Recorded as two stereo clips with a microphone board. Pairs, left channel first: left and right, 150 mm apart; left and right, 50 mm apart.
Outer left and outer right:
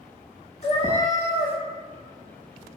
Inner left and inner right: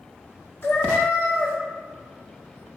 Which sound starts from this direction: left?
A cat meowing, at 0.6 s.